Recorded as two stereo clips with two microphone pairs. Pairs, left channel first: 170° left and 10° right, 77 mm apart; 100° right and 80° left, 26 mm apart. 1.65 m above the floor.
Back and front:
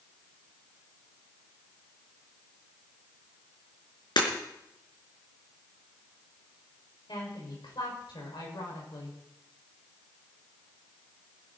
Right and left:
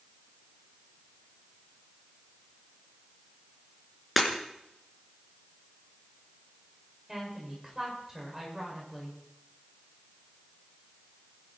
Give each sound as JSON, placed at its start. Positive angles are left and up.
{"t": 4.2, "sound": "breaking glass", "azimuth_deg": 170, "distance_m": 4.0}
{"t": 7.1, "sound": "a woman speaking", "azimuth_deg": 160, "distance_m": 6.5}